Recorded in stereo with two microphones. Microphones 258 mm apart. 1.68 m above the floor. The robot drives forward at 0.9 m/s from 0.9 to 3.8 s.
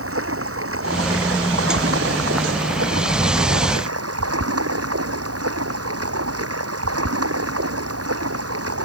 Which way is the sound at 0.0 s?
60° right (ahead or behind).